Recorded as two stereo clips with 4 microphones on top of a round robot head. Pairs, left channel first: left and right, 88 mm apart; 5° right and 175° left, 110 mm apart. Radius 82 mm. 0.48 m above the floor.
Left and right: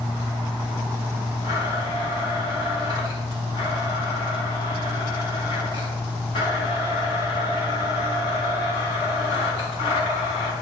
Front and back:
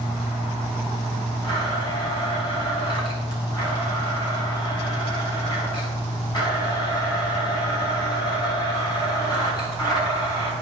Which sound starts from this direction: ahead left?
A blender, at 1.4 s.